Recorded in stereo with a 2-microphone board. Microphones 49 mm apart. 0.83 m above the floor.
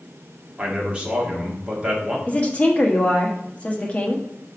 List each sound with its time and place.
0.6 s a man speaking: 25° right (ahead or behind), 1.7 m
2.3 s a woman speaking: 25° left (ahead or behind), 1.2 m